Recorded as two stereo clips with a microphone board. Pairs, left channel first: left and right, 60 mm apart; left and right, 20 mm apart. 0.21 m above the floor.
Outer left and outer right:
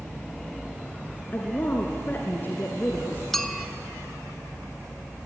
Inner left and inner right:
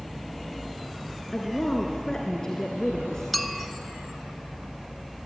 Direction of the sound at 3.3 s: 5° left (ahead or behind).